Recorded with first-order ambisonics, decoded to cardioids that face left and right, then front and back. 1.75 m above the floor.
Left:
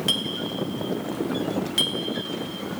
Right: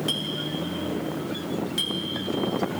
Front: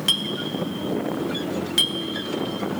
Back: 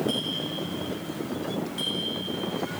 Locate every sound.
0.1 s a clink: 20° left, 1.9 m